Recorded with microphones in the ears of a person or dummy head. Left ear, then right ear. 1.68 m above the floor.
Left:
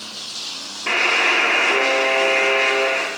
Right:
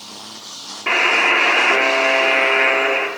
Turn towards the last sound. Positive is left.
turn(degrees=-10)  # may be behind; listen again after turning